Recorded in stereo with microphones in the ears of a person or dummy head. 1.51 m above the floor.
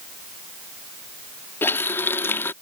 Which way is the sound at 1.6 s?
5° left (ahead or behind).